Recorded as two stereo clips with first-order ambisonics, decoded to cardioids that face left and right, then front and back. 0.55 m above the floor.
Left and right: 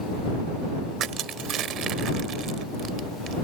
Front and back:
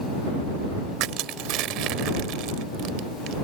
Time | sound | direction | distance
1.0 | crushing | 145° right | ?